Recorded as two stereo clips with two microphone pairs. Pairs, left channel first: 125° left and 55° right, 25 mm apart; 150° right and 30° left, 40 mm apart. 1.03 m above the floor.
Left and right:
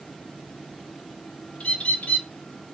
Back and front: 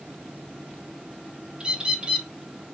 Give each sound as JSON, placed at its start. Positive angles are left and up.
{"t": 1.6, "sound": "a bird", "azimuth_deg": 95, "distance_m": 0.6}